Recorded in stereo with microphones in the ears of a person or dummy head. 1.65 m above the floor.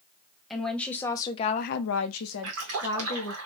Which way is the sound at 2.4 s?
85° right.